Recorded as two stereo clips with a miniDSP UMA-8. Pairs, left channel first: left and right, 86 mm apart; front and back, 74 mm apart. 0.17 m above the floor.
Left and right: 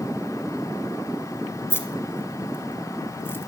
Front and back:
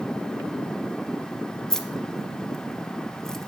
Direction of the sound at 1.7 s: 75° left.